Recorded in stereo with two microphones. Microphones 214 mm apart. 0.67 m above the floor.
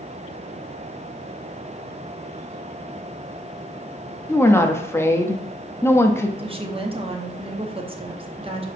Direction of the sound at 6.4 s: 25° right (ahead or behind).